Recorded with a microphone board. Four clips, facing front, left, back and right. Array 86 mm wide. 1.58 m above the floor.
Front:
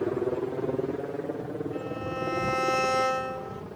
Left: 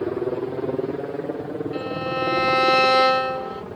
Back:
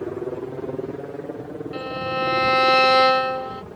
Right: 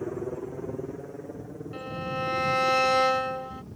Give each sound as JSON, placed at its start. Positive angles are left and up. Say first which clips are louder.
{"t": 0.0, "sound": "a helicopter", "louder": "left 8 dB, front 1 dB", "azimuth_deg": 85}
{"t": 1.7, "sound": "a violin", "louder": "left 4 dB, back 6 dB", "azimuth_deg": 150}